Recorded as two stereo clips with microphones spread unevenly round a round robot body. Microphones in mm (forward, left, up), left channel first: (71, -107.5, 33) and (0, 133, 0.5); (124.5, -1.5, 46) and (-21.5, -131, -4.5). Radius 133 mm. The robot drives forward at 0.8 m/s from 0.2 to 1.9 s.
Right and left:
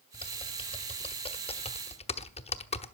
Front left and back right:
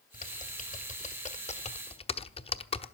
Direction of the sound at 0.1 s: 5° right.